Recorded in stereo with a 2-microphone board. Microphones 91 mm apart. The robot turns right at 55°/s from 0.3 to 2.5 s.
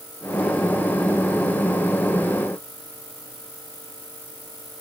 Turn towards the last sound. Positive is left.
No sound to turn to.